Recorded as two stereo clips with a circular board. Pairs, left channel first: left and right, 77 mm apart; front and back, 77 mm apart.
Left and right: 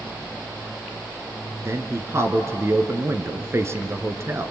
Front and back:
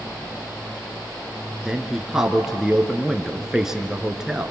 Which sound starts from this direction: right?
A man speaking, at 1.6 s.